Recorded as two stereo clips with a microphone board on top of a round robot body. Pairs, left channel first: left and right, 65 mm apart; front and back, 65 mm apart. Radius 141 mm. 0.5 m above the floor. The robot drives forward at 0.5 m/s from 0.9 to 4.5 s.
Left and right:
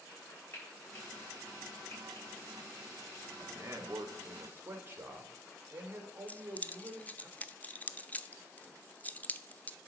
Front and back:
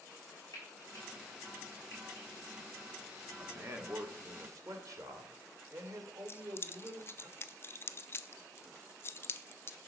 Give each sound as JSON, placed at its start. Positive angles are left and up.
{"t": 0.5, "sound": "frying", "azimuth_deg": 35, "distance_m": 5.0}
{"t": 3.4, "sound": "a man speaking", "azimuth_deg": -135, "distance_m": 1.6}
{"t": 6.3, "sound": "keys jangling", "azimuth_deg": 30, "distance_m": 0.7}